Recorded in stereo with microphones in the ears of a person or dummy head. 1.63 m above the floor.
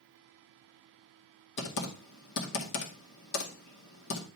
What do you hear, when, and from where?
1.6 s typing on a keyboard: 65° left (ahead or behind), 2.0 m